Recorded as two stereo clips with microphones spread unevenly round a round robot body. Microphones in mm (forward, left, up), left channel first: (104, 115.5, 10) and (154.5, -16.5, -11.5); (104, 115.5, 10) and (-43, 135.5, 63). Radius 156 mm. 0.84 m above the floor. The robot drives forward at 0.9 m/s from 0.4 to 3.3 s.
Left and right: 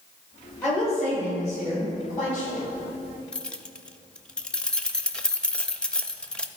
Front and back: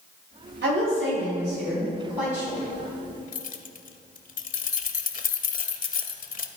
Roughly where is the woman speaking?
Behind.